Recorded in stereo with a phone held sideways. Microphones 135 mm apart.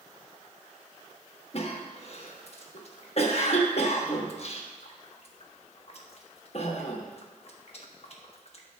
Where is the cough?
50° left (ahead or behind), 1.1 m.